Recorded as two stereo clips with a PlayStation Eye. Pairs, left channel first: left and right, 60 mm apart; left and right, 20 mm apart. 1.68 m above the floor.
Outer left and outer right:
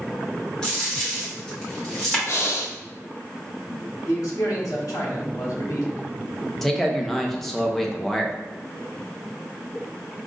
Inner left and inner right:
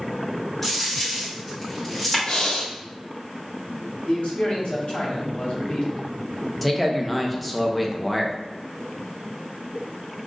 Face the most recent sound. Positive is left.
turn(degrees=5)  # may be behind; listen again after turning